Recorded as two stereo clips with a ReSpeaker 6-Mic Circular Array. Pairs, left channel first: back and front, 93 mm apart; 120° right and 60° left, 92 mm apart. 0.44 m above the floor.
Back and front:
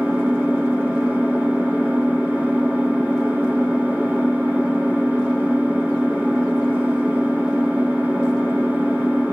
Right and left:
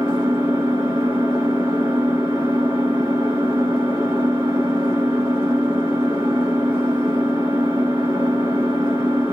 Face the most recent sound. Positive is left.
turn(degrees=70)